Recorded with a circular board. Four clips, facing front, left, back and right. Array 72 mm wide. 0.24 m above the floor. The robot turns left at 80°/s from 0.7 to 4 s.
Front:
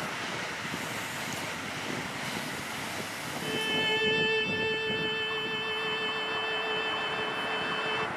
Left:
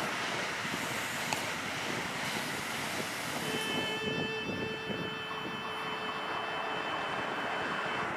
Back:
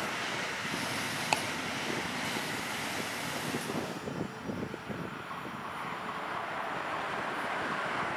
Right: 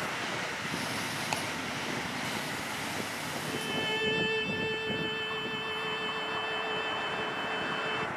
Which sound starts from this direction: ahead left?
A violin, at 3.4 s.